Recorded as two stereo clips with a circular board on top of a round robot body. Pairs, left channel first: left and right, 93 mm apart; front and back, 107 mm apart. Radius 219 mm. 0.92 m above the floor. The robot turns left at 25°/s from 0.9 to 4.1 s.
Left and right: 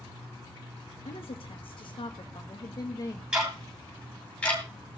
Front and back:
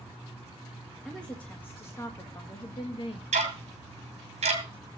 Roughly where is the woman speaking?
Left.